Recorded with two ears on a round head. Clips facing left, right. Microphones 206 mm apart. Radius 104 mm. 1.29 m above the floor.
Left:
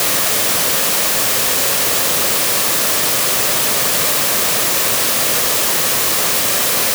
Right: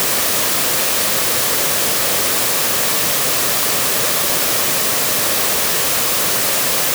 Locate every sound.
Only background noise.